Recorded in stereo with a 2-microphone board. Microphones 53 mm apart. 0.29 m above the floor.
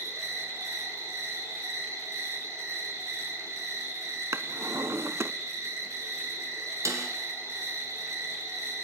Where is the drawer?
60° right (ahead or behind), 0.7 m.